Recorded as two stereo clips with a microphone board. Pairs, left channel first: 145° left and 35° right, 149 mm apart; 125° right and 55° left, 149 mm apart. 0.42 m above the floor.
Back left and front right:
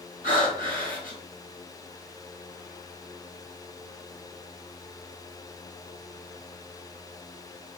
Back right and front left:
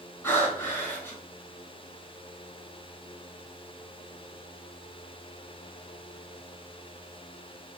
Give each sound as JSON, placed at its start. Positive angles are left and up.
{"t": 0.2, "sound": "breathing", "azimuth_deg": 160, "distance_m": 3.5}